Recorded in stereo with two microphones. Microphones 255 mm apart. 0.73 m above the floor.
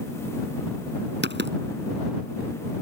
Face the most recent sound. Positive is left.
turn(degrees=-50)  # may be behind; listen again after turning